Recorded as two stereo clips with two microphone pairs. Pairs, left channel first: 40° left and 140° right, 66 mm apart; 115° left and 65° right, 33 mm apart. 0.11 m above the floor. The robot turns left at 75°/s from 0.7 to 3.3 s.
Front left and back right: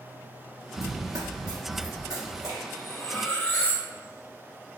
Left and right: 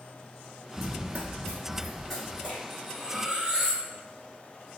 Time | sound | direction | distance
0.8 | running footsteps | 100° right | 0.6 m
2.7 | cutlery clinking | 30° left | 0.8 m